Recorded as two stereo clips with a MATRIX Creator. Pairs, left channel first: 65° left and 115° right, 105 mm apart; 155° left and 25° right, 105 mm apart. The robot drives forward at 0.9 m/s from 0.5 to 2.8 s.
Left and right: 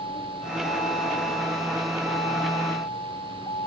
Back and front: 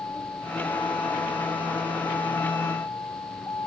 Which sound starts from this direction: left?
A vehicle, at 0.0 s.